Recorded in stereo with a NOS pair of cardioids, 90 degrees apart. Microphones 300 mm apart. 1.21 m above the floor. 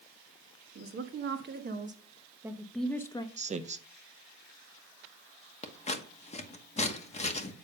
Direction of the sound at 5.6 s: 20° left.